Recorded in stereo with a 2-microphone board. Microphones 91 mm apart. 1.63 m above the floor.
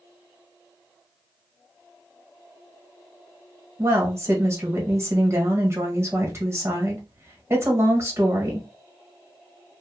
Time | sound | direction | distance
3.8 | a woman speaking | 30° right (ahead or behind) | 1.7 m